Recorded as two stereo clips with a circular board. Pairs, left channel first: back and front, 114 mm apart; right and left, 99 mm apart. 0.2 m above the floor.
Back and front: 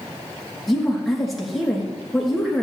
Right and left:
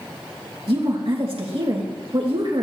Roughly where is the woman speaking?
Left.